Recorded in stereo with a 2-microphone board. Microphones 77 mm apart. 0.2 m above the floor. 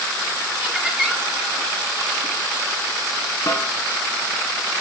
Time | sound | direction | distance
0.6 | laughter | 20° right (ahead or behind) | 3.5 m
3.5 | a snare drum | 35° left (ahead or behind) | 1.7 m